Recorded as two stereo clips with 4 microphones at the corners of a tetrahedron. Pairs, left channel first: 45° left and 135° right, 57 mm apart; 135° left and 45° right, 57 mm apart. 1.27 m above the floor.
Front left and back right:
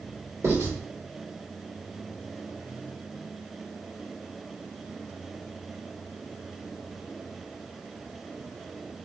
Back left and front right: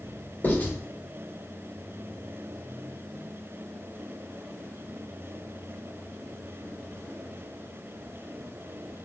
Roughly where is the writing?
Behind.